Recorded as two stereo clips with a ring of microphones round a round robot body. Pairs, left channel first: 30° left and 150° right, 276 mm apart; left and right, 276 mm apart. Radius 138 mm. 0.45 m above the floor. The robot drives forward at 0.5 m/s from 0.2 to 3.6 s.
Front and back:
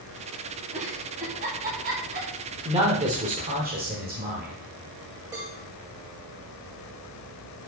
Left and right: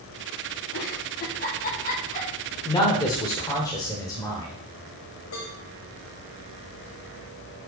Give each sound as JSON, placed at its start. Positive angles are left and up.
{"t": 0.7, "sound": "a giggle", "azimuth_deg": 145, "distance_m": 2.5}
{"t": 2.6, "sound": "a man speaking", "azimuth_deg": 155, "distance_m": 1.5}
{"t": 5.3, "sound": "a cowbell", "azimuth_deg": 130, "distance_m": 5.5}